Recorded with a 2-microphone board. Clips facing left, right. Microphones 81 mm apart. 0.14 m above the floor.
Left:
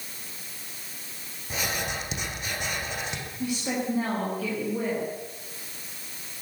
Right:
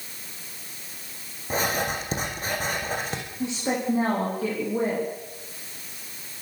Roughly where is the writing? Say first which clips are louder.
Right 5 dB; right.